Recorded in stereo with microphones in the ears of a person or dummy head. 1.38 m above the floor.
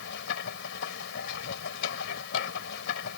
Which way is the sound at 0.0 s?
65° left (ahead or behind).